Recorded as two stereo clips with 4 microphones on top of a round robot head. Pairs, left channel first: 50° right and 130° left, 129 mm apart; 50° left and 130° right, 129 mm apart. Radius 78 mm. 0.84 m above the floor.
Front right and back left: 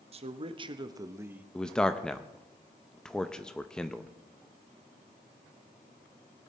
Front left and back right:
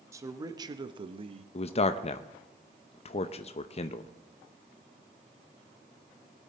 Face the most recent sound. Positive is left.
turn(degrees=30)